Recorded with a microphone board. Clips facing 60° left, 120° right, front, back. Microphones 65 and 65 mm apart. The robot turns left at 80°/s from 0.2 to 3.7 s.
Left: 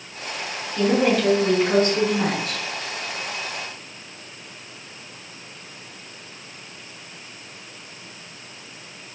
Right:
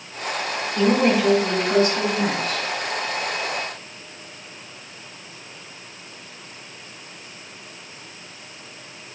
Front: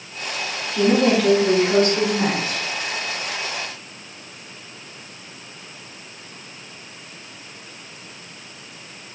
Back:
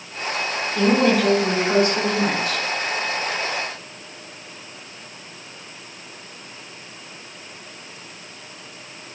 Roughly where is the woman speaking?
Behind.